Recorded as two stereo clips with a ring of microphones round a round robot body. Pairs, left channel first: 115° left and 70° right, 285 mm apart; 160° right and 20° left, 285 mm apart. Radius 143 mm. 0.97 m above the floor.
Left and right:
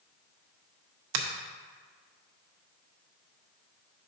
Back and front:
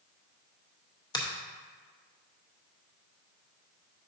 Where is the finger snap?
80° right, 0.8 m.